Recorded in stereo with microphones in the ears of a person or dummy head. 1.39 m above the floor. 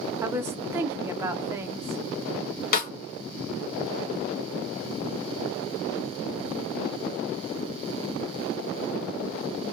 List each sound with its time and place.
0.2 s a woman speaking: 15° right (ahead or behind), 0.7 m
2.7 s a snare drum: 50° left (ahead or behind), 1.3 m